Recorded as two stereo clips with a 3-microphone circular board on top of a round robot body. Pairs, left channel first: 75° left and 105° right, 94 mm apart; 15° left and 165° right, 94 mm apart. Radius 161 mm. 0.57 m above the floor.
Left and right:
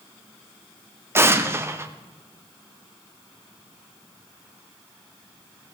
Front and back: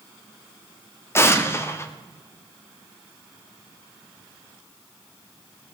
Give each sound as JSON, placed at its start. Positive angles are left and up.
{"t": 1.1, "sound": "an explosion", "azimuth_deg": -45, "distance_m": 1.2}